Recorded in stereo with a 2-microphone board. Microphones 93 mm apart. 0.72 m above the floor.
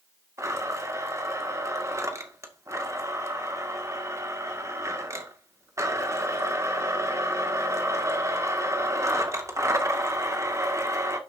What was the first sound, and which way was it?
A blender, 35° right (ahead or behind).